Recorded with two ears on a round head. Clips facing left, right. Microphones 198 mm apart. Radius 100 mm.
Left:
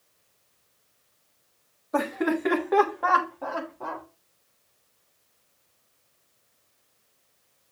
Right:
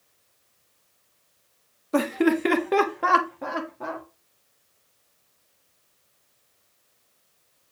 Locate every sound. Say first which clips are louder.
1.9 s laughter: right 4 dB; 40° right (ahead or behind), 1.5 m; by 4.0 s 20° right (ahead or behind), 1.8 m